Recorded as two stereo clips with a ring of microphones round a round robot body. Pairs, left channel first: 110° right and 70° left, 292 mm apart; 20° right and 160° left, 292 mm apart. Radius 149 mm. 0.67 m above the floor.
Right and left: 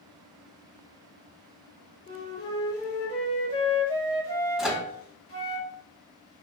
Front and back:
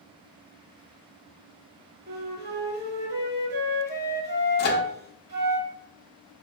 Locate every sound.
2.1 s a flute: 175° left, 1.8 m
4.6 s a microwave: 20° right, 0.9 m